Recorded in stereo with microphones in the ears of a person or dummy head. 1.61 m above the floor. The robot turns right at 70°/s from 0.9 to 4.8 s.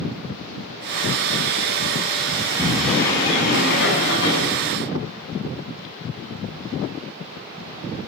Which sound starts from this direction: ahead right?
A sliding door, at 2.4 s.